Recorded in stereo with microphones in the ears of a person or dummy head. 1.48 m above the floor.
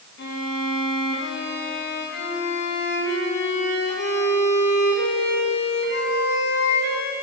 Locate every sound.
0.2 s a violin: 60° left (ahead or behind), 1.9 m